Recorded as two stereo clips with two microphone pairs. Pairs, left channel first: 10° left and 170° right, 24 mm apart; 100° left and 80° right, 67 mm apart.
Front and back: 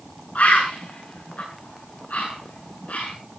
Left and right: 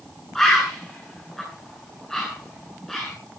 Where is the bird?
15° left, 8.5 m.